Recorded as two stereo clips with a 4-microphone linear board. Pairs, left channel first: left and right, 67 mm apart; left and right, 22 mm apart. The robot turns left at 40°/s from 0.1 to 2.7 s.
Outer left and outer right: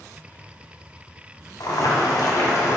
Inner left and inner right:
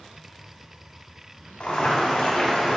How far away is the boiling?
About 2.5 m.